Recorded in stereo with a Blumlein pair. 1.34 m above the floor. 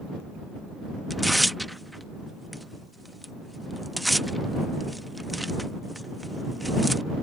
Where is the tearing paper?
Straight ahead.